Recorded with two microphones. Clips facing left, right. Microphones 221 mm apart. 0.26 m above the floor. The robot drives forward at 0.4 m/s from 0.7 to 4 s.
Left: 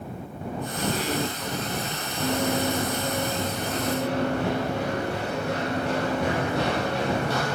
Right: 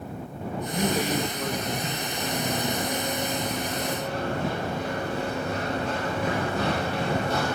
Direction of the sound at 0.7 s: 45° right (ahead or behind).